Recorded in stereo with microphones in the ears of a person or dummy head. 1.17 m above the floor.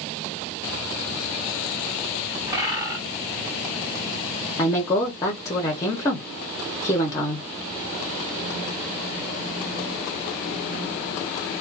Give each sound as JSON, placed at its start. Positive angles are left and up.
{"t": 2.5, "sound": "a bird", "side_deg": -15, "distance_m": 1.4}
{"t": 4.6, "sound": "a woman speaking", "side_deg": 20, "distance_m": 0.7}